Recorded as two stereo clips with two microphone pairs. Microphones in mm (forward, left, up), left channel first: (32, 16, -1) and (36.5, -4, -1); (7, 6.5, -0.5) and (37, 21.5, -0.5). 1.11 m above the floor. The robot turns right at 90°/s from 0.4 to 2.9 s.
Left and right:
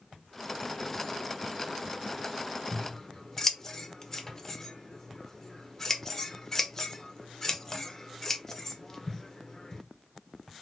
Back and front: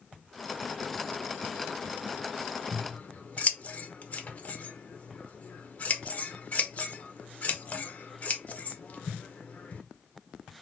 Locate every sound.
2.7 s scissors: 150° left, 0.5 m; by 9.8 s 170° left, 0.5 m